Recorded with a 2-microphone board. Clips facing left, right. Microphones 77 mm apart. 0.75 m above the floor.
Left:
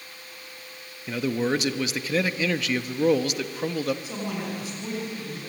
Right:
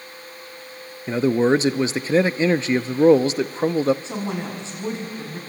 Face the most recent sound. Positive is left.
turn(degrees=-30)  # may be behind; listen again after turning